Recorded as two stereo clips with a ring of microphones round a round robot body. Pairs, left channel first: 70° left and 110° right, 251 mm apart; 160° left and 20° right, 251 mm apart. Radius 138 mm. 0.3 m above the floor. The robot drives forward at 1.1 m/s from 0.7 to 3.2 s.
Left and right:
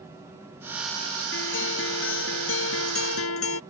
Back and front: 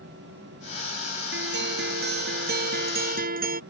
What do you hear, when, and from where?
1.3 s a guitar: 25° left; by 3.6 s 35° left